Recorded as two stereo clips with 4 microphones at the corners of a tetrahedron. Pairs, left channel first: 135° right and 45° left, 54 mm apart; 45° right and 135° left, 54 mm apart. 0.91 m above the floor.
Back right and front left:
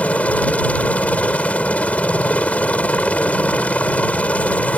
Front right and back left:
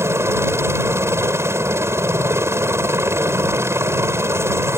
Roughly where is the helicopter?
Behind.